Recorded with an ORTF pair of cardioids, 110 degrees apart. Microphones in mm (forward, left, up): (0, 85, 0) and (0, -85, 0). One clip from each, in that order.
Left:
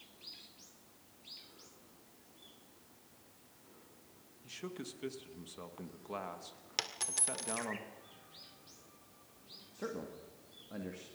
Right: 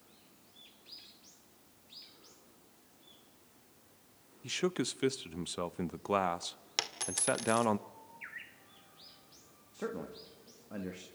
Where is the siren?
I don't hear a siren.